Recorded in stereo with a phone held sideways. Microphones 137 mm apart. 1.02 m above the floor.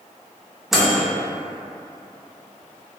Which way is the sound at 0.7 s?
5° right (ahead or behind).